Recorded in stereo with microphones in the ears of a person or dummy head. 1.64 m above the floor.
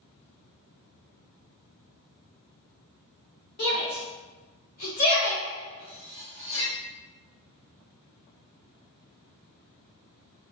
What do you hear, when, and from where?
3.6 s a shout: 40° left (ahead or behind), 0.9 m; by 5.4 s 35° left (ahead or behind), 0.9 m
5.8 s cutlery clinking: 40° left (ahead or behind), 1.0 m